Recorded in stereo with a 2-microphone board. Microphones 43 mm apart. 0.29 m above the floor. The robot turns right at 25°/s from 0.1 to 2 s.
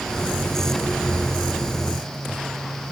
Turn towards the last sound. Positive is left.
No sound to turn to.